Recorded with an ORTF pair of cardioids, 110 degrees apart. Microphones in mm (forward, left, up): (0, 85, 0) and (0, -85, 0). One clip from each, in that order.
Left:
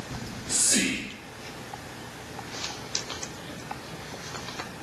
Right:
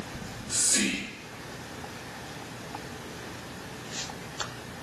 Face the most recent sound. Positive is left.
turn(degrees=65)